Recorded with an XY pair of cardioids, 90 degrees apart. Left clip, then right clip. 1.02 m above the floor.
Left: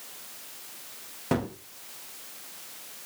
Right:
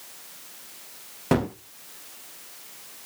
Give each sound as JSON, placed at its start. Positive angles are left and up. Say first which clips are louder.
{"t": 1.3, "sound": "a gunshot", "louder": "right 5 dB", "azimuth_deg": -45, "distance_m": 0.8}